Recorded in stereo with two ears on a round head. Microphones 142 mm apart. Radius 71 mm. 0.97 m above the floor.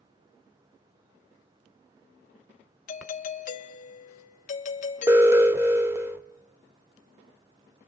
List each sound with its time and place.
2.9 s a doorbell: 50° left (ahead or behind), 0.9 m
5.1 s an alarm: 15° right (ahead or behind), 0.8 m